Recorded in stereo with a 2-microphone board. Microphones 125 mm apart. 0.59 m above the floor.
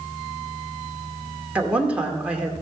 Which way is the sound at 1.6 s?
10° right (ahead or behind).